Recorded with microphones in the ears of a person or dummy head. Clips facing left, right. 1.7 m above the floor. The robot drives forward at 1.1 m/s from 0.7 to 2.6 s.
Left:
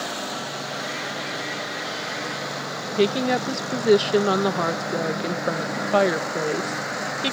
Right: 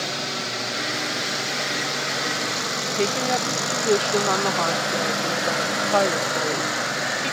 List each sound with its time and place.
0.0 s a drone: 30° right (ahead or behind); by 7.3 s 45° right (ahead or behind)
3.0 s a woman speaking: 20° left (ahead or behind)